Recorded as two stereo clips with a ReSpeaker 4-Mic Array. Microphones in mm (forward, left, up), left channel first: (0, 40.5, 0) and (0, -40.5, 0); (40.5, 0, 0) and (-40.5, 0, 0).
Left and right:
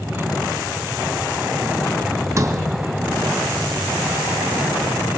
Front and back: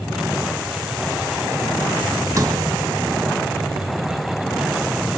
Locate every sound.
2.4 s a sliding door: 135° right, 1.5 m